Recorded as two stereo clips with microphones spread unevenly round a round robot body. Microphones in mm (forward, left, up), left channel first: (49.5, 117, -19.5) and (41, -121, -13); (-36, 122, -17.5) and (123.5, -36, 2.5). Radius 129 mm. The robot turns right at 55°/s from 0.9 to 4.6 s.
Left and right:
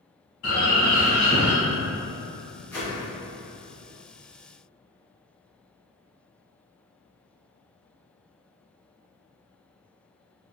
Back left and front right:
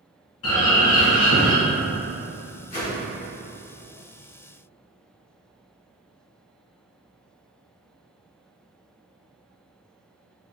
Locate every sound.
0.4 s a bird: 125° left, 1.2 m; by 1.5 s 160° left, 1.2 m
2.7 s a whoosh: 165° left, 1.7 m; by 3.0 s 175° right, 1.7 m